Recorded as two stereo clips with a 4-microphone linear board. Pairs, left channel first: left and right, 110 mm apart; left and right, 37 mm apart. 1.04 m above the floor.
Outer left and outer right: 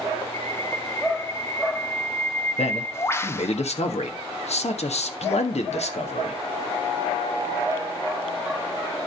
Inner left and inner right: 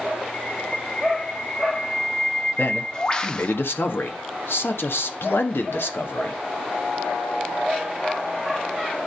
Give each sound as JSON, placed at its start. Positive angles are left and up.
{"t": 0.3, "sound": "a bird", "side_deg": 25, "distance_m": 0.8}
{"t": 2.6, "sound": "a man speaking", "side_deg": 80, "distance_m": 1.5}